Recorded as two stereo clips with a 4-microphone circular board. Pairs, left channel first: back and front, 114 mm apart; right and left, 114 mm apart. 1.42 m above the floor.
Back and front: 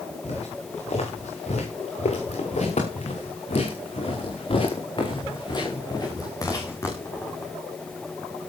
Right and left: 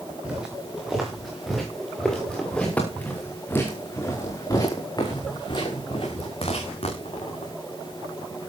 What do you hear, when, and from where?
0.2 s footsteps: 170° left, 8 m; by 7.5 s 110° right, 6 m